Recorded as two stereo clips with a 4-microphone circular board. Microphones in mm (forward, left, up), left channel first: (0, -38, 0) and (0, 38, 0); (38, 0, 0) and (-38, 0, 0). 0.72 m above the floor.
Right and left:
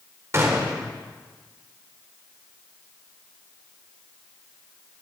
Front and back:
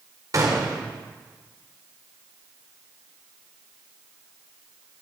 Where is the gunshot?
140° left, 2.0 m.